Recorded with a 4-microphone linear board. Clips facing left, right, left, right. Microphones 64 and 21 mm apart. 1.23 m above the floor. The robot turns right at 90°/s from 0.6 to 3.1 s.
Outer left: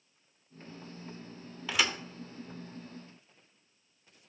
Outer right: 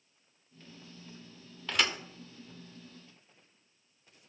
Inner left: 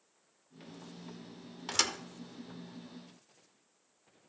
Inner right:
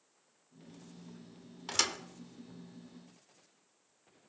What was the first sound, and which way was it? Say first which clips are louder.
A thud: even, inner left 1 dB; 5° left (ahead or behind).